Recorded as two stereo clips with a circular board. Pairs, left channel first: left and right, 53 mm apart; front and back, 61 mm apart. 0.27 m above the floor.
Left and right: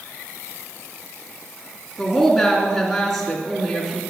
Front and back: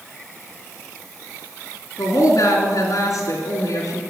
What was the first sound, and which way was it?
A woman speaking, 5° left.